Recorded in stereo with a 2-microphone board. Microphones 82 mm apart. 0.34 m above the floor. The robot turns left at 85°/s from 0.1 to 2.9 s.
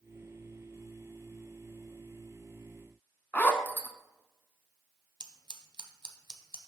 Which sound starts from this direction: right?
Scissors, at 5.2 s.